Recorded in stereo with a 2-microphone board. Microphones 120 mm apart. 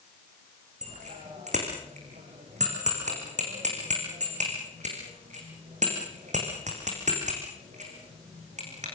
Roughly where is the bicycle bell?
Right.